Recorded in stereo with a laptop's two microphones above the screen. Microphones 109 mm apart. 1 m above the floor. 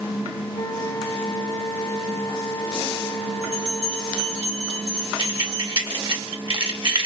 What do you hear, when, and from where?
0.5 s a flute: 40° left (ahead or behind), 0.9 m
3.4 s a bell: 70° right (ahead or behind), 2.5 m
5.2 s keys jangling: 45° right (ahead or behind), 1.3 m